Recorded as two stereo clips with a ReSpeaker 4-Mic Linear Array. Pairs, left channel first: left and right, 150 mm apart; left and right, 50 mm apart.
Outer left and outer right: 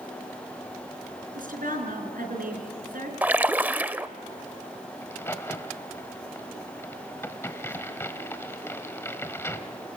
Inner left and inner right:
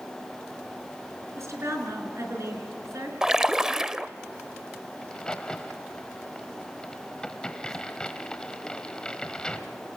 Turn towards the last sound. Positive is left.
turn(degrees=15)  # may be behind; listen again after turning